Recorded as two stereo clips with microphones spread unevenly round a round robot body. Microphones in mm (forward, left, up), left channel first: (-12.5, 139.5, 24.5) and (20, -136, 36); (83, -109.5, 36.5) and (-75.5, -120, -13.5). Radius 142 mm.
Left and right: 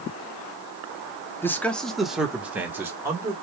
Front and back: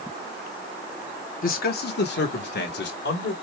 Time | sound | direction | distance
1.4 | a man speaking | 25° left | 1.0 m